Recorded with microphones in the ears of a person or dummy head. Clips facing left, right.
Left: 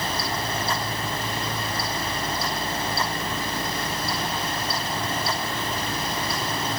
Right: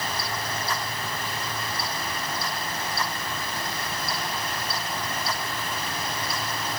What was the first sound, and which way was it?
Only background noise.